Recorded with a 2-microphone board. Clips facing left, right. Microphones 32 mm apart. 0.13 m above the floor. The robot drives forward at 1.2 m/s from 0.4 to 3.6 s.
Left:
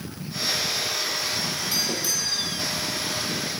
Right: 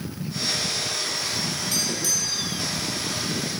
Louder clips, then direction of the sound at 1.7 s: Even; 20° left (ahead or behind).